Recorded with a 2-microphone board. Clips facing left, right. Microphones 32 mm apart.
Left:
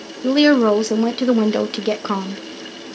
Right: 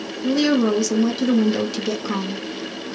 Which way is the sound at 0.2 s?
40° left (ahead or behind).